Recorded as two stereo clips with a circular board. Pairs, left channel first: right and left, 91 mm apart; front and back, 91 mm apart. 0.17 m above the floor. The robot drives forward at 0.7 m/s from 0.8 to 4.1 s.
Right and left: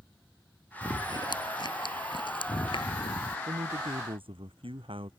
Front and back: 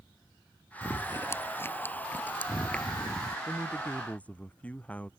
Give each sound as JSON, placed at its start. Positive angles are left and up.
{"t": 0.8, "sound": "chewing", "azimuth_deg": -55}
{"t": 3.5, "sound": "a man speaking", "azimuth_deg": 75}